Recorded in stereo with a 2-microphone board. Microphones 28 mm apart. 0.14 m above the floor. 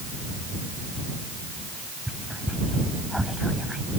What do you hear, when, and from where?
1.7 s whispering: 15° right (ahead or behind)